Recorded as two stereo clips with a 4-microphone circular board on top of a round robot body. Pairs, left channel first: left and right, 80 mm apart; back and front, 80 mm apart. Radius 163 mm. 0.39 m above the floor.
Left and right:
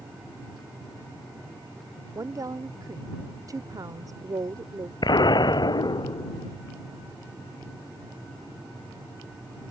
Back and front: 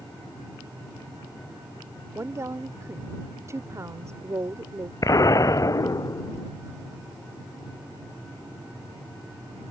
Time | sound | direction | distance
2.1 | a woman speaking | 50° right | ?
5.0 | an explosion | 130° left | ?